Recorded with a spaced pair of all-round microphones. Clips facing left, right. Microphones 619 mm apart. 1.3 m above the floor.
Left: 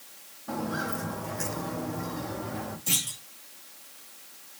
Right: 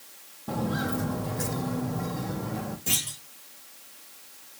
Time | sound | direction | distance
0.5 | footsteps | 60° right (ahead or behind) | 2.5 m
2.9 | a clunk | 75° right (ahead or behind) | 7.5 m